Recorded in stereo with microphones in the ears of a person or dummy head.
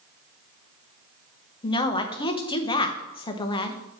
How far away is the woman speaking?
About 0.9 m.